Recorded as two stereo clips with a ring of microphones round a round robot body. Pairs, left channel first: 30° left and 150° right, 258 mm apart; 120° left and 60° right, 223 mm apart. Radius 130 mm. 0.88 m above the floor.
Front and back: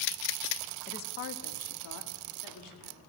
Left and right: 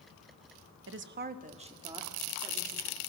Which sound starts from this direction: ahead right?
A woman speaking, at 0.9 s.